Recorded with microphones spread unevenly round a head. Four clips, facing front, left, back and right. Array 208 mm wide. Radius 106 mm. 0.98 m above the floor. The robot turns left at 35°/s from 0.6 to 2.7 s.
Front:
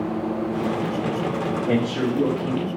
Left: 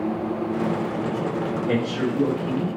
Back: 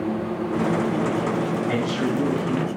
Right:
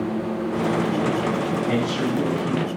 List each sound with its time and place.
1.7 s a man speaking: 5° left, 1.8 m; by 2.7 s 30° right, 1.8 m